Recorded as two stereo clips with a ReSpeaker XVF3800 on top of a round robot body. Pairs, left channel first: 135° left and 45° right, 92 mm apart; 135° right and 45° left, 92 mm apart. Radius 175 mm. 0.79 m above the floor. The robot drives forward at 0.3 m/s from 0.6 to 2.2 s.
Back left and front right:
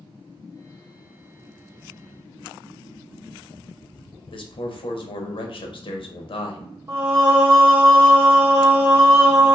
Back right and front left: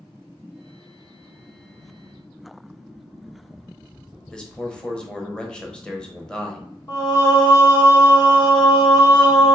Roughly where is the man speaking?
Behind left.